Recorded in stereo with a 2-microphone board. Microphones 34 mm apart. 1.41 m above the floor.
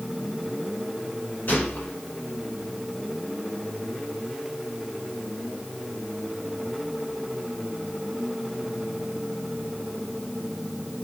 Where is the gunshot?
60° left (ahead or behind), 4.5 m.